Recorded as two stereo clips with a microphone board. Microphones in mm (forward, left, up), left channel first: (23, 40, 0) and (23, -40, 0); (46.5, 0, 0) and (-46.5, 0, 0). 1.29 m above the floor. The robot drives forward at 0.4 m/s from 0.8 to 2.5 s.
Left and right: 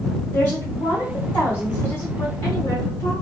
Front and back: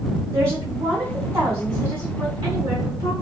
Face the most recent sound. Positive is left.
turn(degrees=145)